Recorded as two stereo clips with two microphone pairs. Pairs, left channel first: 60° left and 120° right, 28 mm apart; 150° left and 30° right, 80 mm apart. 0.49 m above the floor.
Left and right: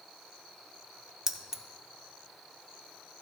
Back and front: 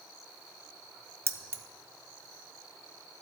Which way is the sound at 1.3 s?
65° right.